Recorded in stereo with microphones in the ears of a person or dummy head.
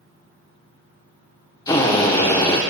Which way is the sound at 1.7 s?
20° left (ahead or behind).